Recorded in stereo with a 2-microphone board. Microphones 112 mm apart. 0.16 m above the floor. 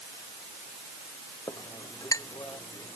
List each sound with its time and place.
1.5 s a clink: 30° left (ahead or behind)